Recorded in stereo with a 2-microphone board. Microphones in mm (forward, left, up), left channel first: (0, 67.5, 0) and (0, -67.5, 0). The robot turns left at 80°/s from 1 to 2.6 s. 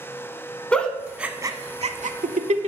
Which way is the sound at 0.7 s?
10° left (ahead or behind).